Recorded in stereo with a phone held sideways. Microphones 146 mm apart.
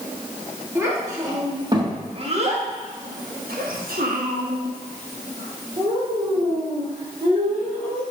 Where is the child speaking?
15° right (ahead or behind), 2 m; by 8.0 s 35° right (ahead or behind), 3.5 m.